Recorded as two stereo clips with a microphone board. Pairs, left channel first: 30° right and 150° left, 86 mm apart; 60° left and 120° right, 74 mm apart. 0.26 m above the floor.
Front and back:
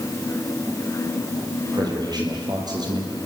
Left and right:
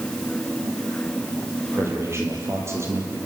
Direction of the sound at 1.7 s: 175° right.